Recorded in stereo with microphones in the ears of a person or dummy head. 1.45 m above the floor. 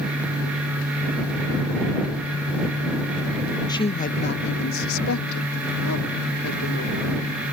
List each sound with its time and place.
3.7 s a woman speaking: 15° left (ahead or behind); by 7.4 s 75° left (ahead or behind)